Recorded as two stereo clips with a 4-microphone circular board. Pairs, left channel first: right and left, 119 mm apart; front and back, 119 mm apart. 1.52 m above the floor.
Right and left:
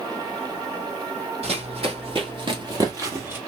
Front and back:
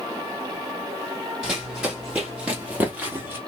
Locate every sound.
1.4 s running footsteps: 95° left, 3 m; by 3.4 s 135° left, 1.6 m